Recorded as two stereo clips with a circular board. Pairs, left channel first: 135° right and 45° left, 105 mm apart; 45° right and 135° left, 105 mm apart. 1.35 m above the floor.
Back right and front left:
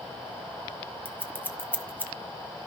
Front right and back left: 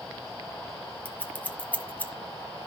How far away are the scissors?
About 1.2 m.